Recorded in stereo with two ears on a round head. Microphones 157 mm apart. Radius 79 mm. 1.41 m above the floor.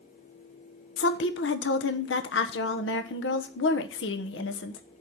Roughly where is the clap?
No clap in this recording.